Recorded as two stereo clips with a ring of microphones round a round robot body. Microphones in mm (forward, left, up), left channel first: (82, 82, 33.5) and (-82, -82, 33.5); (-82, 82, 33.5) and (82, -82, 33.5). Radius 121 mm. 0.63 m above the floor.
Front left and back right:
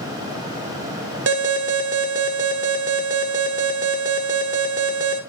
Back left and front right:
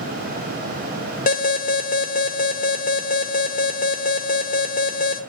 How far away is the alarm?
About 1.4 m.